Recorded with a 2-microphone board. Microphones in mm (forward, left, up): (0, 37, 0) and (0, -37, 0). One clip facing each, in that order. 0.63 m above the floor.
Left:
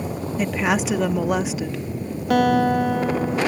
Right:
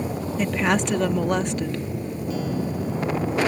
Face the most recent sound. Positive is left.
turn(degrees=70)  # may be behind; listen again after turning